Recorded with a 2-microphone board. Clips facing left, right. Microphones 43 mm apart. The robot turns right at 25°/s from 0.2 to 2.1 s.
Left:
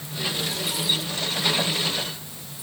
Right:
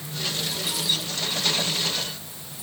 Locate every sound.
Only background noise.